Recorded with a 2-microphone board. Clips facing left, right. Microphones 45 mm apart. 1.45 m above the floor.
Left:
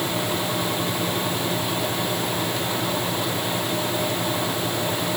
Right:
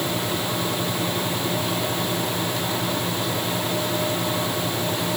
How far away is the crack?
No crack in this recording.